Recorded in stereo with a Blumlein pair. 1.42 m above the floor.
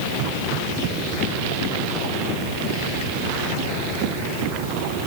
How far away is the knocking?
No knocking in this recording.